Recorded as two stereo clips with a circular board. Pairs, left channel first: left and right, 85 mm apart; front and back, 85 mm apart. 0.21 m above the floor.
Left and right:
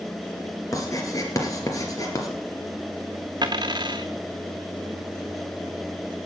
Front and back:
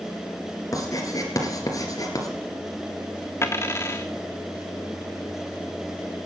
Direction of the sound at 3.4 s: 55° right.